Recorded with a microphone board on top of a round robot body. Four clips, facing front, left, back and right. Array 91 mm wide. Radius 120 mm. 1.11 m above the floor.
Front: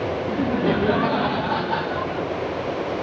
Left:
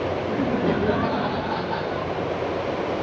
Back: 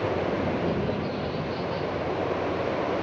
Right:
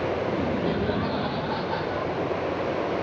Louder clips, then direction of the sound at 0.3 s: Left 3 dB, front 5 dB; 25° left.